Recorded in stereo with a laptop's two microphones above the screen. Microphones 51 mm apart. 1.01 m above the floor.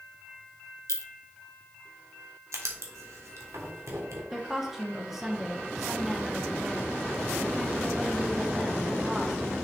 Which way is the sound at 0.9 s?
80° left.